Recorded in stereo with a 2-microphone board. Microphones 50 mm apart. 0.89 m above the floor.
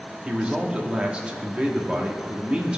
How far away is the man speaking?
About 1.4 m.